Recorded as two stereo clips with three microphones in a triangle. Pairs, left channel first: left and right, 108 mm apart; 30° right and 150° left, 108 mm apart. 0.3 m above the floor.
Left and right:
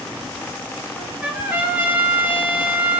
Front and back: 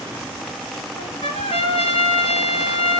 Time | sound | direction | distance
1.0 | a trumpet | 15° right | 1.8 m